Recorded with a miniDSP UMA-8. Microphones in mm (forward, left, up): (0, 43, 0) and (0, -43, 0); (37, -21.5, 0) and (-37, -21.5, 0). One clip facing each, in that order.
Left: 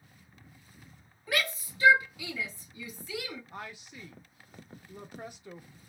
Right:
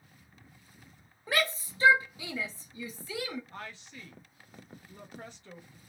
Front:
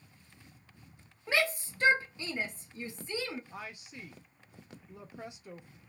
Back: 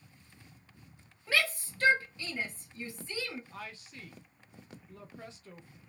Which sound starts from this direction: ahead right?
A shout, at 1.3 s.